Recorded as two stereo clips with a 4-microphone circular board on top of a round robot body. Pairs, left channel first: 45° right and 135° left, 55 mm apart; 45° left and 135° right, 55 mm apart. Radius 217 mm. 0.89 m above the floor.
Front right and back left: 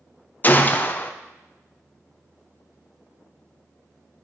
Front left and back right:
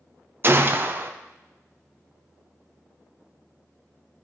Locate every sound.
0.4 s a gunshot: 95° right, 0.6 m